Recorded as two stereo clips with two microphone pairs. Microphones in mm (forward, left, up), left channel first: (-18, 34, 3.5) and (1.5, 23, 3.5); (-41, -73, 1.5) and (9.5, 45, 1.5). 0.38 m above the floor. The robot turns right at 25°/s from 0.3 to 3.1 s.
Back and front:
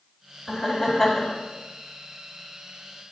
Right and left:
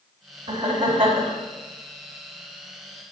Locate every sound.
0.5 s laughter: 65° left, 2.5 m; by 1.3 s 85° left, 2.5 m